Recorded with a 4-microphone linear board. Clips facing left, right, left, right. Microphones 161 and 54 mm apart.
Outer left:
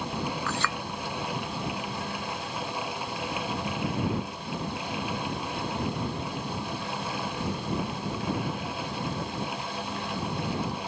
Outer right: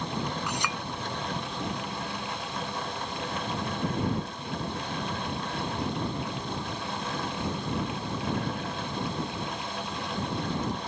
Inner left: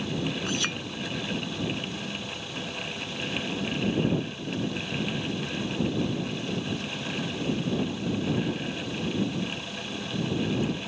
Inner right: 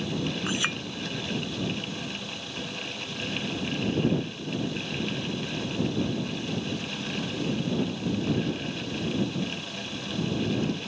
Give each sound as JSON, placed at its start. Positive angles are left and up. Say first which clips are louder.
{"t": 0.5, "sound": "a clink", "louder": "outer left 1 dB, inner right 1 dB", "side_deg": -15}